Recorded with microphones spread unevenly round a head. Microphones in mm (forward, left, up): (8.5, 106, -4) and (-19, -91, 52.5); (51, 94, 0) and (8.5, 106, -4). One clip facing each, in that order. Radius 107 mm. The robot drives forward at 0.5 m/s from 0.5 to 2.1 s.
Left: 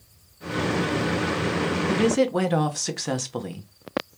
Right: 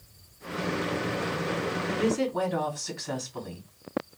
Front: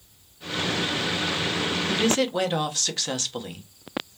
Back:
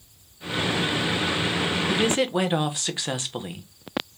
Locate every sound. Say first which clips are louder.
1.9 s a woman speaking: left 6 dB, even; 80° left, 1.0 m; by 3.7 s 90° left, 1.0 m